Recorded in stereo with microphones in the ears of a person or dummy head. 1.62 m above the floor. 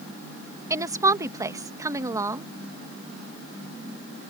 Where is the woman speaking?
20° right (ahead or behind).